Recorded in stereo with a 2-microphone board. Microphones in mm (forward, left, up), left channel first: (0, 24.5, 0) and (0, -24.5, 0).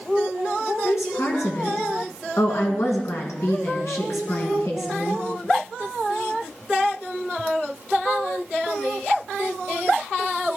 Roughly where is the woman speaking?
Left.